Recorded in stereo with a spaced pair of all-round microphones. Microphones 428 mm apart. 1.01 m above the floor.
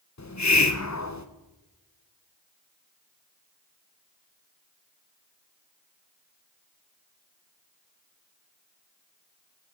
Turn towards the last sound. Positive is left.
turn(degrees=40)  # may be behind; listen again after turning